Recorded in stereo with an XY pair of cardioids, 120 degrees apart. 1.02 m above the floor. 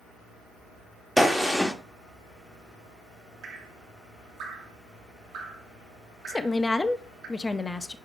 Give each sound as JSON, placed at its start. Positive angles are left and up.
{"t": 1.2, "sound": "a gunshot", "azimuth_deg": 0, "distance_m": 1.0}
{"t": 3.4, "sound": "dripping", "azimuth_deg": -65, "distance_m": 2.5}
{"t": 6.3, "sound": "a woman speaking", "azimuth_deg": 15, "distance_m": 0.8}